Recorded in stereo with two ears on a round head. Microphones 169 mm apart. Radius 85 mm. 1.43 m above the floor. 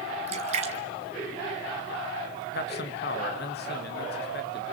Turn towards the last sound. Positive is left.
turn(degrees=55)  # may be behind; listen again after turning